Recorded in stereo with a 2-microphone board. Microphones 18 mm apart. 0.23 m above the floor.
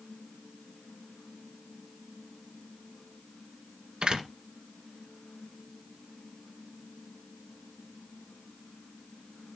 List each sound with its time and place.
4.0 s a door slam: 70° right (ahead or behind), 1.8 m